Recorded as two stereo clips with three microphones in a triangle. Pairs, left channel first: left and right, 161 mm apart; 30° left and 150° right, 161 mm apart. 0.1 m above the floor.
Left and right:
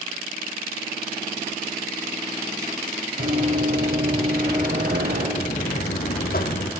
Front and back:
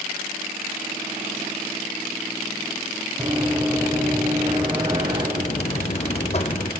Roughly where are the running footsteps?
Right.